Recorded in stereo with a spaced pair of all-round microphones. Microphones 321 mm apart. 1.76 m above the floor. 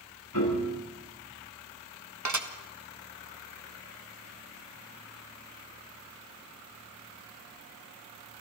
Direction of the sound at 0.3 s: 75° left (ahead or behind).